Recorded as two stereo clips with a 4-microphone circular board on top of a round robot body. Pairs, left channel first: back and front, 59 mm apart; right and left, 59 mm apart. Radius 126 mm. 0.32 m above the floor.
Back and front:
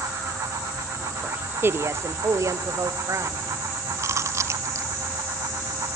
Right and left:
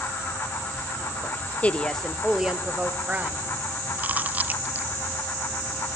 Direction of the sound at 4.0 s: 30° left.